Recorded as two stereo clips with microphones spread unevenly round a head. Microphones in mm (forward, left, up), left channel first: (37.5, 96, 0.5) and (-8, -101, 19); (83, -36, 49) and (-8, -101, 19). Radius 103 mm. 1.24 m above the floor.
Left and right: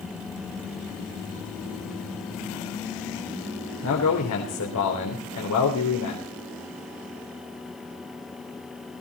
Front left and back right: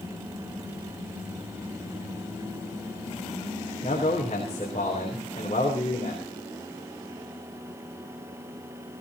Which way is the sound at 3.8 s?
95° left.